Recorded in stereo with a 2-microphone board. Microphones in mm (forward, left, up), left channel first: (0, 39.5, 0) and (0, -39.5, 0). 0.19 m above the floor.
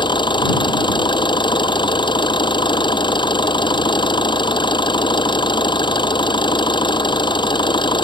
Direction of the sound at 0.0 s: 75° left (ahead or behind).